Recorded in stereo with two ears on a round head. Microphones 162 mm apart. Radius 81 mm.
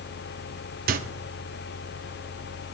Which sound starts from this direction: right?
A microwave, at 0.9 s.